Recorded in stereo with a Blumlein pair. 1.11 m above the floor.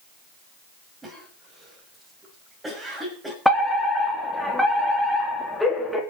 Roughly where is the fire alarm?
Ahead.